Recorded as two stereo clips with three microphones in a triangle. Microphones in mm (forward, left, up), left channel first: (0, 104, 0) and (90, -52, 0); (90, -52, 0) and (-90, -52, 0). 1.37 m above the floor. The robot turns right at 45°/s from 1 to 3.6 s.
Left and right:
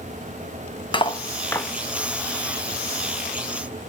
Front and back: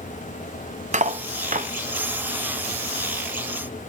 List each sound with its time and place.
0.9 s cutlery clinking: 165° left, 0.7 m; by 1.7 s 165° right, 0.7 m